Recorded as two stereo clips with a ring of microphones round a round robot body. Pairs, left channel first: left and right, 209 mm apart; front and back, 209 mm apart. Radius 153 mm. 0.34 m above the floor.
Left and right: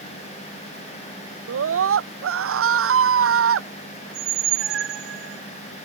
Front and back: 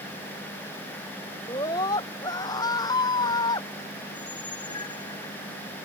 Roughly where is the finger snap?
I don't hear a finger snap.